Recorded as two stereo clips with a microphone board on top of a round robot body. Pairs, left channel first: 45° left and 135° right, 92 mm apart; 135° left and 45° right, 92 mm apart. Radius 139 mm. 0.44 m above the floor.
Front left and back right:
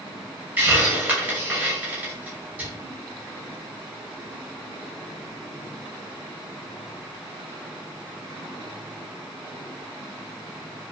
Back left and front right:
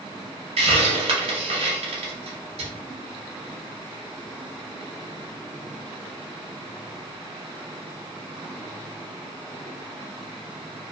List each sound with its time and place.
0.6 s a hiss: 60° right, 0.6 m